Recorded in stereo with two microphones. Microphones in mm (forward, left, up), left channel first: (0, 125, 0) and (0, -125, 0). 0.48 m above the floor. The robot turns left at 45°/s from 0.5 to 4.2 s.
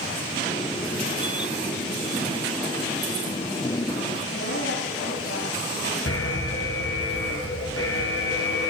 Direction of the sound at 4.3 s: 75° left (ahead or behind).